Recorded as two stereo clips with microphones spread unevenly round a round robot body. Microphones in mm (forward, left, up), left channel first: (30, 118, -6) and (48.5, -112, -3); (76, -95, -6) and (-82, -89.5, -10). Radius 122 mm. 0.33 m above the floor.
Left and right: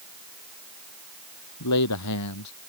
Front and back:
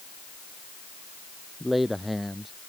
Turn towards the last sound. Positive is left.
turn(degrees=90)